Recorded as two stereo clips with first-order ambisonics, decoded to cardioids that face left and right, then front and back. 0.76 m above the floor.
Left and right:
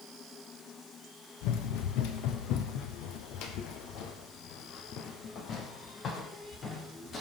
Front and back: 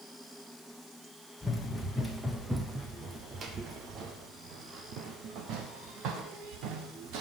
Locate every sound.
1.4 s running footsteps: 80° left, 1.9 m; by 7.2 s 160° left, 3 m